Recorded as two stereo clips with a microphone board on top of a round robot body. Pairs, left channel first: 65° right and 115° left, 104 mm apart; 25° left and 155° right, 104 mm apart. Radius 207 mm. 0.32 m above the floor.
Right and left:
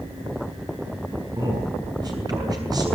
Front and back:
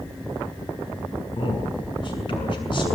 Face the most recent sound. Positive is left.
turn(degrees=60)